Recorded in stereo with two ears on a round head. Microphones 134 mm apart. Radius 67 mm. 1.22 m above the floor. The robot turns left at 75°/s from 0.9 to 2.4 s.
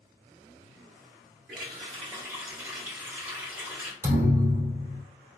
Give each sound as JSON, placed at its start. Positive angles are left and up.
{"t": 1.5, "sound": "a running tap", "azimuth_deg": -100, "distance_m": 1.6}
{"t": 4.0, "sound": "a thud", "side_deg": -20, "distance_m": 1.3}